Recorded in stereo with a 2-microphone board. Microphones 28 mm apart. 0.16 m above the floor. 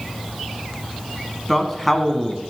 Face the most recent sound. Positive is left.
turn(degrees=10)  # may be behind; listen again after turning